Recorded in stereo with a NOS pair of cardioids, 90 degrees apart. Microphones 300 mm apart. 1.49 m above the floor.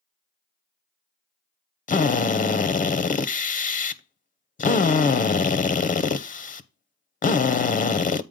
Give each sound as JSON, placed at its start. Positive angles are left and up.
{"t": 1.9, "sound": "a drill", "azimuth_deg": 25, "distance_m": 0.8}